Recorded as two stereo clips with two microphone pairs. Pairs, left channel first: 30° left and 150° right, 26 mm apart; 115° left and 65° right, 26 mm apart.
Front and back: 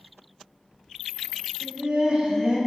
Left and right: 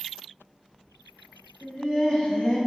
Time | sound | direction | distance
1.6 | laughter | 165° left | 1.0 m